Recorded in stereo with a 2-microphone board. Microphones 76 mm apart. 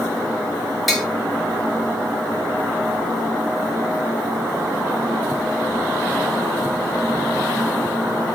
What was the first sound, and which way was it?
Tapping, centre (ahead or behind).